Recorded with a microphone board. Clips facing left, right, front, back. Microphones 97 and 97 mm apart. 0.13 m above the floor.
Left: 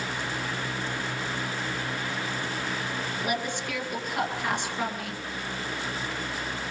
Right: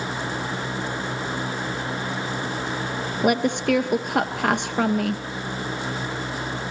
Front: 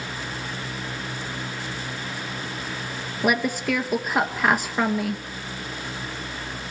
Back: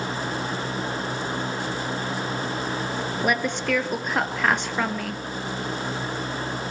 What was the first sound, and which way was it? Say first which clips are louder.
A woman speaking: right 13 dB, front 3 dB; 85° right.